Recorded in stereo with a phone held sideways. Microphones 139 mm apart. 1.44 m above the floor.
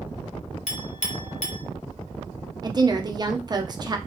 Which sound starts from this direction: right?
A woman speaking, at 2.6 s.